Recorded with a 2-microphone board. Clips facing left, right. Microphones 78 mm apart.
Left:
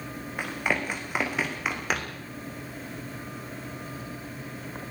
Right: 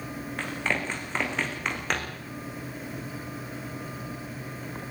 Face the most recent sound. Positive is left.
turn(degrees=5)  # may be behind; listen again after turning